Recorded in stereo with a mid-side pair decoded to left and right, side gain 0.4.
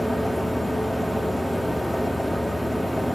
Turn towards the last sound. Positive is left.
turn(degrees=-5)